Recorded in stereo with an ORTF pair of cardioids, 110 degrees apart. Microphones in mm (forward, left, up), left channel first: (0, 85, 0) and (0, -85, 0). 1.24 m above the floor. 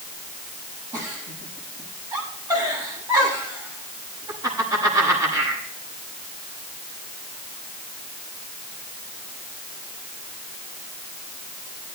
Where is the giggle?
20° right, 7 m.